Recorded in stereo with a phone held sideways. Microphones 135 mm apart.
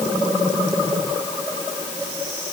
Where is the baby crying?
I don't hear a baby crying.